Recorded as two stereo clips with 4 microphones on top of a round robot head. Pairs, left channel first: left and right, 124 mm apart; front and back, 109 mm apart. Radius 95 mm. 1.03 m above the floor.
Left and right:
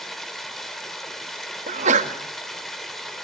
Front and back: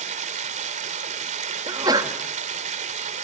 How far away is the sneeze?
About 2 m.